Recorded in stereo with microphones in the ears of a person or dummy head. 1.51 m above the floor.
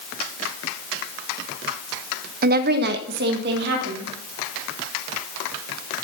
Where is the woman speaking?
45° right (ahead or behind), 0.7 m; by 4.1 s 55° right (ahead or behind), 3.5 m.